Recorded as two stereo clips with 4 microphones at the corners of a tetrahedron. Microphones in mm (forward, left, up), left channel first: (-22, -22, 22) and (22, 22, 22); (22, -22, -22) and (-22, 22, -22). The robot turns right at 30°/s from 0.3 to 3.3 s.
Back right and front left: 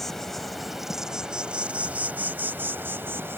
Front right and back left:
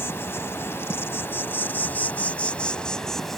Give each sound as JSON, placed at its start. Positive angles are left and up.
{"t": 0.0, "sound": "an insect", "azimuth_deg": -50}